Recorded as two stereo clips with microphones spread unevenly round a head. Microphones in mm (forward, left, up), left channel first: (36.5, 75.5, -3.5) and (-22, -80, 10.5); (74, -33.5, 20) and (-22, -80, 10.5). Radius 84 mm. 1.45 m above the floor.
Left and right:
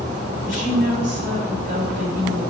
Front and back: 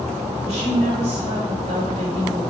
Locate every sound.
0.4 s a woman speaking: 155° right, 3 m